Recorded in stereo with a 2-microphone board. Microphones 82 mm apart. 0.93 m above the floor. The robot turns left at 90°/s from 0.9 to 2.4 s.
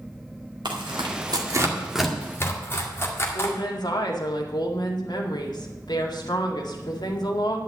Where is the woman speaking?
65° left (ahead or behind), 2.0 m.